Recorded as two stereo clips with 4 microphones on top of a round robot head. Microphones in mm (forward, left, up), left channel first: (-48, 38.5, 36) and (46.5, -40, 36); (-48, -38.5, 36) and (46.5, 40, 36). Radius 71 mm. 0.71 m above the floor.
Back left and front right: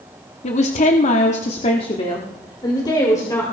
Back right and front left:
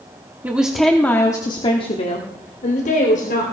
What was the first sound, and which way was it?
A woman speaking, 115° left.